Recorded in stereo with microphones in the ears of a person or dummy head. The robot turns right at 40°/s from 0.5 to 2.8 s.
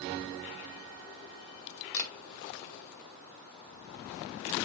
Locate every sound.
1.9 s a camera shutter: 65° left (ahead or behind), 1.7 m; by 2.1 s 60° left (ahead or behind), 1.7 m